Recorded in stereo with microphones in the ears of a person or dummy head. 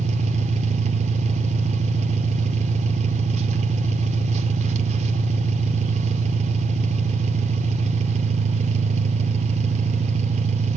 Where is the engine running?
40° right (ahead or behind), 0.7 m.